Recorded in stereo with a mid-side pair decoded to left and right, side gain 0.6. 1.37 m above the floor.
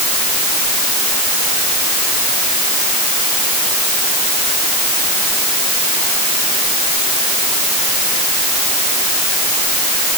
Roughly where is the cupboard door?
No cupboard door in this recording.